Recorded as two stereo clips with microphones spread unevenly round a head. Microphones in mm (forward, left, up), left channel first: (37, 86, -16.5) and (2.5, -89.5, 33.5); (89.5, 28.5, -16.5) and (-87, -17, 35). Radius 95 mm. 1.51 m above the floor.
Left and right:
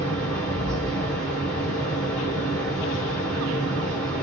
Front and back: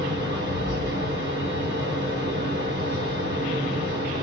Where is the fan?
160° left, 1.8 m.